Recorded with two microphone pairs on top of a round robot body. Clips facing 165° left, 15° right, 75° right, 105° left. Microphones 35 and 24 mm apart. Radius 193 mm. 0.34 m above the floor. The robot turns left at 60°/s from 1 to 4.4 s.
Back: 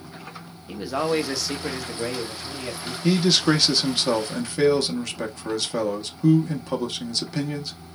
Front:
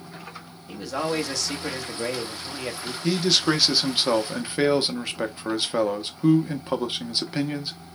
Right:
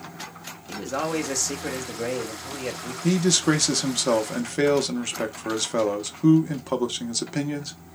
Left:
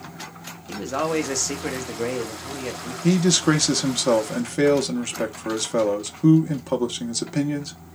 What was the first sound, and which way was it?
A man speaking, 125° left.